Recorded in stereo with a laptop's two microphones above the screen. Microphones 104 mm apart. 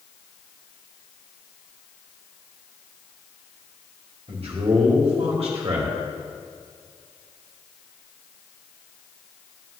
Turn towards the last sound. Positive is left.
turn(degrees=-65)  # may be behind; listen again after turning